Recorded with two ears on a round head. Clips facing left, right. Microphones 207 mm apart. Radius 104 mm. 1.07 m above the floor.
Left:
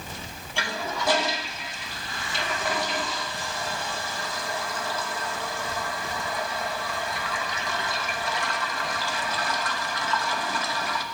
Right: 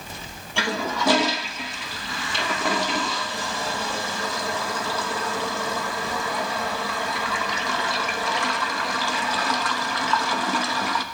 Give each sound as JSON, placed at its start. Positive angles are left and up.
{"t": 0.6, "sound": "a toilet flushing", "side_deg": -60, "distance_m": 1.0}